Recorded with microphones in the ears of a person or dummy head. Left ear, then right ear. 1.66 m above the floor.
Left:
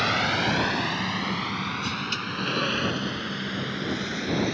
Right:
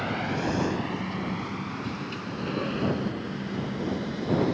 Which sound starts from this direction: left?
A vehicle, at 0.0 s.